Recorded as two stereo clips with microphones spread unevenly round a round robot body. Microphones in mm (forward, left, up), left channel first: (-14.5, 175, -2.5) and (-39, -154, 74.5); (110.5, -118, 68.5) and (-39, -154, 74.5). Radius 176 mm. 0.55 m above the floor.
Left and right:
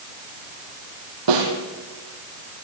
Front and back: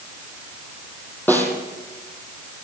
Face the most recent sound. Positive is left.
turn(degrees=-65)